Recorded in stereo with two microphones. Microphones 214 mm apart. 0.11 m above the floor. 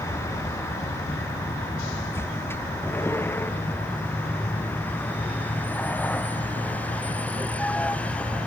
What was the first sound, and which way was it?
A vehicle, 10° left (ahead or behind).